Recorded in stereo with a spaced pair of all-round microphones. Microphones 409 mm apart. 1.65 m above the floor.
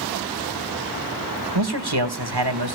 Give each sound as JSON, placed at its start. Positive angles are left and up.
{"t": 1.6, "sound": "a man speaking", "side_deg": -70, "distance_m": 1.6}